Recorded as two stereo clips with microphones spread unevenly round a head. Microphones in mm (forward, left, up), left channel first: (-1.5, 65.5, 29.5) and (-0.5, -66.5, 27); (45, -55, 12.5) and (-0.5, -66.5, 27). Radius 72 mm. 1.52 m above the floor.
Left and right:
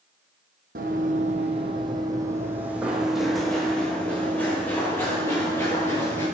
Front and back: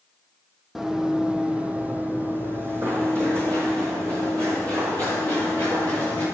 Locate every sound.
0.8 s running footsteps: 100° right, 2.5 m; by 6.2 s 160° left, 6 m